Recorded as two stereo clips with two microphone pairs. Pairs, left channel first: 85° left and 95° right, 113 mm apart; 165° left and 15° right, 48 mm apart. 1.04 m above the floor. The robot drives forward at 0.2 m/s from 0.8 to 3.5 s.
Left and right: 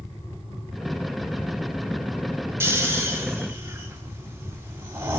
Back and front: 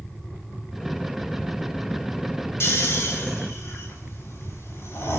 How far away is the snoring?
About 2 m.